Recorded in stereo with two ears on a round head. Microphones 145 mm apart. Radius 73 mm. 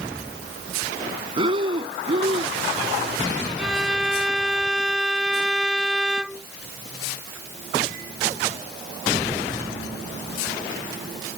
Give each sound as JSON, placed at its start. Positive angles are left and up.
{"t": 1.4, "sound": "breathing", "side_deg": -35}
{"t": 3.6, "sound": "a violin", "side_deg": -5}